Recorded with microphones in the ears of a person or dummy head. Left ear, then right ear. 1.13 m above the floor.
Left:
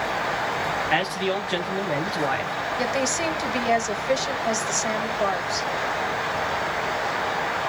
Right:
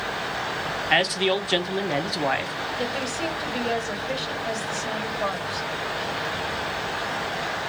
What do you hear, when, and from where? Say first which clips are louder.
0.9 s a man speaking: right 6 dB; 20° right (ahead or behind), 0.8 m
2.8 s a woman speaking: left 5 dB; 80° left, 1.5 m